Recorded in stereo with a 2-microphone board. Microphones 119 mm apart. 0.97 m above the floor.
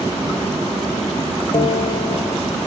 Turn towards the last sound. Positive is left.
turn(degrees=45)  # may be behind; listen again after turning